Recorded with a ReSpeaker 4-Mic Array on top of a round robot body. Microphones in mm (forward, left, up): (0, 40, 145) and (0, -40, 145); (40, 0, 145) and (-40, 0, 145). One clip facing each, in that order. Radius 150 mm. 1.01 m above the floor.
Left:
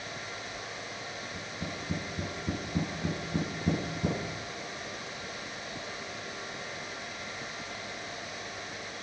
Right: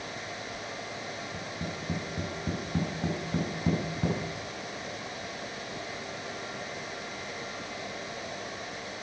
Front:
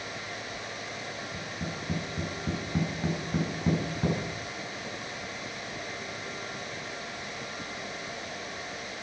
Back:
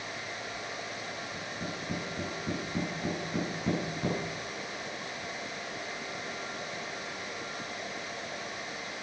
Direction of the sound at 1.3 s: 80° right.